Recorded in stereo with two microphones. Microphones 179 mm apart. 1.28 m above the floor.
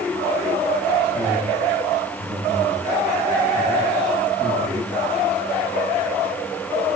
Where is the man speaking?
15° right (ahead or behind), 7.5 m; by 4.9 s 20° right (ahead or behind), 13 m.